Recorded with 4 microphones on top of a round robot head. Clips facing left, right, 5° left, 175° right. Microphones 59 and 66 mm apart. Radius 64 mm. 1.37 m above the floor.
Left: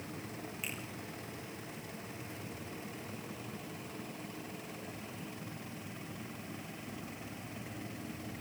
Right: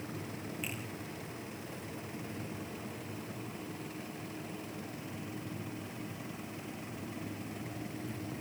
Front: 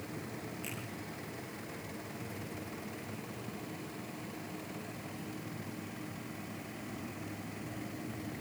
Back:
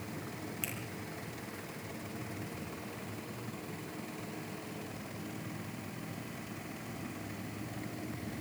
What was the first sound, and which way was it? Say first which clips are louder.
A finger snap: even, back 1 dB; 175° left.